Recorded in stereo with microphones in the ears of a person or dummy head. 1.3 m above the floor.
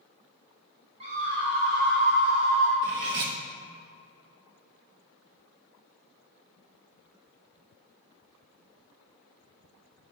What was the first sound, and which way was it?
A scream, 35° right (ahead or behind).